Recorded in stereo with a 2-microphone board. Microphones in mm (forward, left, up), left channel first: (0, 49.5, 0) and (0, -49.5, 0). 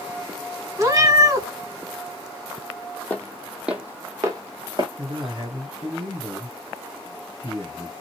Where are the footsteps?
15° left (ahead or behind), 0.9 m; by 4.9 s 50° right (ahead or behind), 1.3 m.